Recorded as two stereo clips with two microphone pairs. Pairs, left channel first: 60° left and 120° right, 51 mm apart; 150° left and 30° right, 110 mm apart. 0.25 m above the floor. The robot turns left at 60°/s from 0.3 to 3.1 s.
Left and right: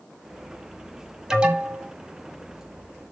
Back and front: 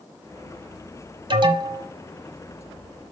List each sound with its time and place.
1.3 s an alarm: 50° right, 1.7 m; by 1.9 s 80° right, 1.7 m